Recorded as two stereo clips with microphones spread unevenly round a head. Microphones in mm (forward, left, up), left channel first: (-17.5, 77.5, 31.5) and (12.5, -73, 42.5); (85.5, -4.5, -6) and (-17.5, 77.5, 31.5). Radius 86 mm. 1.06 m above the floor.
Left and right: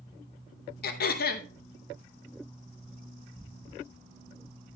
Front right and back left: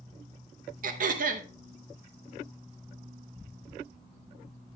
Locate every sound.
0.8 s throat clearing: 125° left, 0.8 m